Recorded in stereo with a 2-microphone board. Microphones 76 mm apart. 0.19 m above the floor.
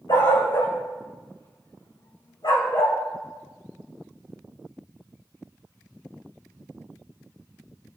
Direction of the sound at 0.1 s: 70° left (ahead or behind).